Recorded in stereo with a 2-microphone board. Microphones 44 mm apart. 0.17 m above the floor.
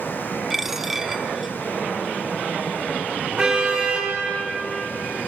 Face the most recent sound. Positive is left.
turn(degrees=-25)  # may be behind; listen again after turning